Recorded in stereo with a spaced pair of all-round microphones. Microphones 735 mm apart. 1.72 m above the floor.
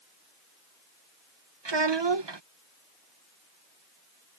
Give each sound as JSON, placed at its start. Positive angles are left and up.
{"t": 1.6, "sound": "a child speaking", "side_deg": -35}